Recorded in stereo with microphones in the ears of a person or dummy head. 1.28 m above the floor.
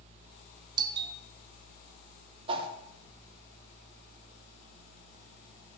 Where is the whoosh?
30° right (ahead or behind), 1.0 m.